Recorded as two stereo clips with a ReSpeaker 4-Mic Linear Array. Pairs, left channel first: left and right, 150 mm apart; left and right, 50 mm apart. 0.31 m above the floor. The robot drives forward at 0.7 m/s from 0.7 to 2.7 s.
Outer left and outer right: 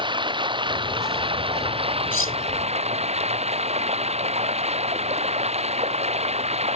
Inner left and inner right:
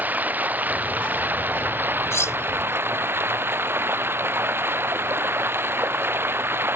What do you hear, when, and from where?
0.0 s running water: 35° right (ahead or behind); by 6.8 s 45° right (ahead or behind)
2.1 s cutlery clinking: 70° left (ahead or behind); by 2.4 s 65° left (ahead or behind)